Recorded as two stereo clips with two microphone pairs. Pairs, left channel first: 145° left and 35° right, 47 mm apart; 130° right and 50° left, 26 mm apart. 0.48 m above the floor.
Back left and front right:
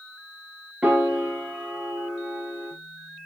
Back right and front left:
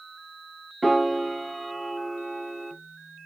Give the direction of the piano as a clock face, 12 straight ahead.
1 o'clock.